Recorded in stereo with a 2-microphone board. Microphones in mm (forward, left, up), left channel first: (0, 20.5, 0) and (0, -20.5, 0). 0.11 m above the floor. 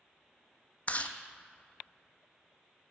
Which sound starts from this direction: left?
Chewing, at 0.9 s.